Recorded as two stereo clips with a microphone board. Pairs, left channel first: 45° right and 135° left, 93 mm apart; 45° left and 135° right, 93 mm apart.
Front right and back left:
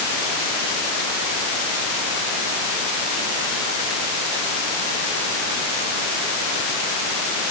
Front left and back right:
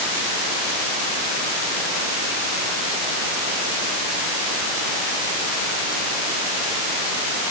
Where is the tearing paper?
I don't hear tearing paper.